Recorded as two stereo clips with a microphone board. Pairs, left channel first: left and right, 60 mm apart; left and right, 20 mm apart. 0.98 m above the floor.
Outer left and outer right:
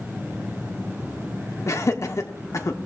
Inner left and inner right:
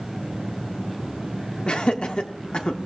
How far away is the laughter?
About 1.3 m.